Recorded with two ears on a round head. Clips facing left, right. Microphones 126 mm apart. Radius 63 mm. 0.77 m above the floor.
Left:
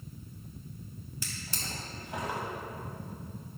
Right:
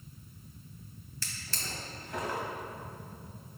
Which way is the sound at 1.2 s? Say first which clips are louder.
Left 1 dB; 15° left (ahead or behind).